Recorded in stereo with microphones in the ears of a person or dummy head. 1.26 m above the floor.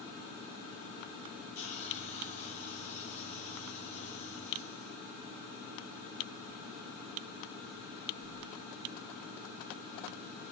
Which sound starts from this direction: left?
A hiss, at 1.6 s.